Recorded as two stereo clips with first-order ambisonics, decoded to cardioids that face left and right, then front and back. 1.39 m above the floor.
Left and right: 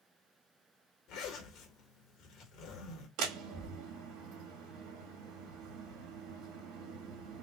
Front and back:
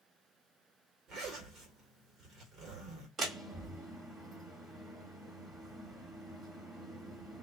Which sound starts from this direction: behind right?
A door slam, at 3.2 s.